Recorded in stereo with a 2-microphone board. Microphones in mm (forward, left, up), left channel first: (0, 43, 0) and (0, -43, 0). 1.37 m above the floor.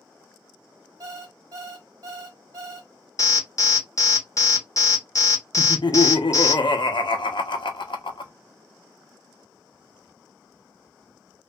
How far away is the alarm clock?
About 1.9 m.